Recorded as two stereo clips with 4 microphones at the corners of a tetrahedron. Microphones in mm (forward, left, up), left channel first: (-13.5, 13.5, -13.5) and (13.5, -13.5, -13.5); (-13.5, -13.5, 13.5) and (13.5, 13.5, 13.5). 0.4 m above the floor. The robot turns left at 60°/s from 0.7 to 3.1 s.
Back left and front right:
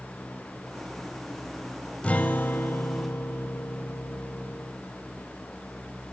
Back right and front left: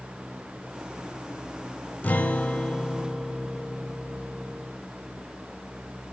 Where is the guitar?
175° right, 0.7 m; by 4.7 s 125° left, 0.7 m.